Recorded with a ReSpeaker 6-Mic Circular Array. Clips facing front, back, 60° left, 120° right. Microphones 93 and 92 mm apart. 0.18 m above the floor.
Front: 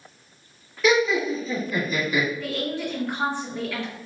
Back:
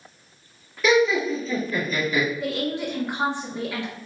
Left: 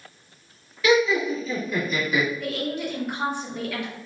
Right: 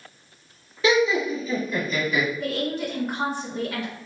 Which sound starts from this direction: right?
Laughter, at 0.8 s.